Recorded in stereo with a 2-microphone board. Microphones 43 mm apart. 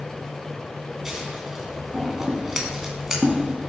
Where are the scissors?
10° right (ahead or behind), 2.5 m.